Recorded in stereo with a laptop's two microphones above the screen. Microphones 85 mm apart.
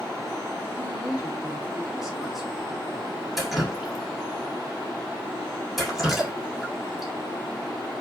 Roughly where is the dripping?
Centre.